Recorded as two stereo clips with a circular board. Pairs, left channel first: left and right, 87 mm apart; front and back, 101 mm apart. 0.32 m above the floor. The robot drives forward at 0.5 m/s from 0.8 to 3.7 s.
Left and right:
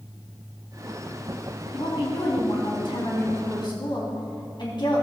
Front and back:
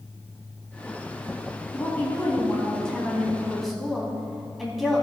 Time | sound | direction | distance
1.7 | a woman speaking | 70° left | 3 m